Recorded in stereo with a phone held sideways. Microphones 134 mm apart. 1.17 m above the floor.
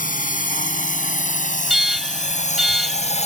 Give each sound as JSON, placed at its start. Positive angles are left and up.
{"t": 0.0, "sound": "a drone", "side_deg": 75}
{"t": 1.7, "sound": "an alarm", "side_deg": 0}